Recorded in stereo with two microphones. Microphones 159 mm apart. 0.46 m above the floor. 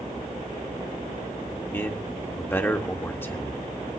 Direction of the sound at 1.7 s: 15° left (ahead or behind).